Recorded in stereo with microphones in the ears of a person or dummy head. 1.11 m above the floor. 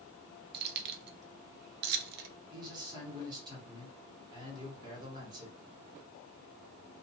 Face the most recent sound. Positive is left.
turn(degrees=-20)  # may be behind; listen again after turning